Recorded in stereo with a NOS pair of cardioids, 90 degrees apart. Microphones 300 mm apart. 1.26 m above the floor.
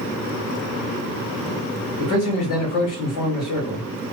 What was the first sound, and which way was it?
A man speaking, 60° left.